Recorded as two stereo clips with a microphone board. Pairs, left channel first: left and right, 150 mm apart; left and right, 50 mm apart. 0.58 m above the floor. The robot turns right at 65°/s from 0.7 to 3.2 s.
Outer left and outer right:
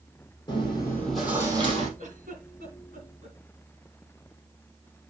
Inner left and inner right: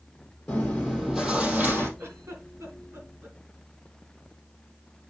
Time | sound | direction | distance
0.5 | chewing | 150° left | 4 m
2.0 | a giggle | 50° right (ahead or behind) | 2.5 m